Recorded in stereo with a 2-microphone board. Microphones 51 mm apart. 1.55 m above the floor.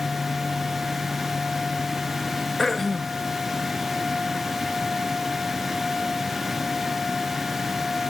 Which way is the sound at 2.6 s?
5° left (ahead or behind).